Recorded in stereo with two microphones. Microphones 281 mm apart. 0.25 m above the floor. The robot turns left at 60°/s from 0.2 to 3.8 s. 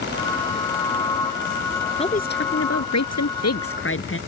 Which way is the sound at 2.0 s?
160° left.